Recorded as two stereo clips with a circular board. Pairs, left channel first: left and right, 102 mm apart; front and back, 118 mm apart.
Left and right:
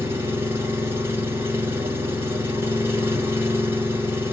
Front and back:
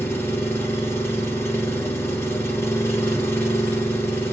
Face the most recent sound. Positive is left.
turn(degrees=-45)